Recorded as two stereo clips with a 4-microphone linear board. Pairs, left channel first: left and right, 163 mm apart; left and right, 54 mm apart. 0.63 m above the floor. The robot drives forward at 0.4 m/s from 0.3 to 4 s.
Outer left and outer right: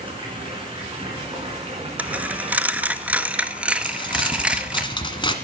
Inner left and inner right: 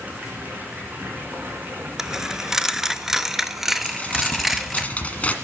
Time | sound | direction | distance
0.0 | running water | 35° right (ahead or behind) | 4 m
2.0 | a dropped coin | 10° right (ahead or behind) | 0.6 m
3.8 | crumpling | 30° left (ahead or behind) | 1.4 m